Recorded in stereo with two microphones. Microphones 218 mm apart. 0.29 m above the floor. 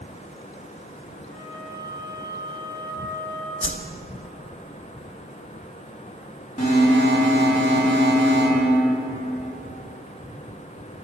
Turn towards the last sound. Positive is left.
turn(degrees=35)  # may be behind; listen again after turning